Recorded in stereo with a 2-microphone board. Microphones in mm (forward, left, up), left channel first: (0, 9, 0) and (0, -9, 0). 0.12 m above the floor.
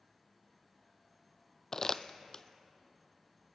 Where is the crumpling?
25° left (ahead or behind), 0.6 m.